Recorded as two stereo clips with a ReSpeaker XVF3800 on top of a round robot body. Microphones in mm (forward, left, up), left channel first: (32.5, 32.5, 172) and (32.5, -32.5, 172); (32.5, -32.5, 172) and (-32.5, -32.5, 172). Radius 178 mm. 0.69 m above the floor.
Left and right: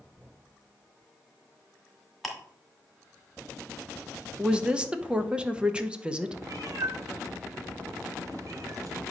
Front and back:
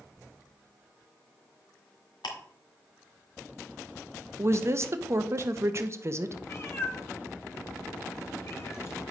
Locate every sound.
2.2 s ticking: straight ahead, 1.9 m
4.4 s a woman speaking: 160° right, 1.0 m
6.4 s a cat meowing: 50° right, 1.7 m